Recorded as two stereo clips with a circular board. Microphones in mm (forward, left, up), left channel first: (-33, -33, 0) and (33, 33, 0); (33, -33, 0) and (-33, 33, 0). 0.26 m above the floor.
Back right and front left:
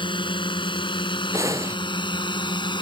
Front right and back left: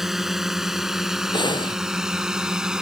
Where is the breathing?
10° right.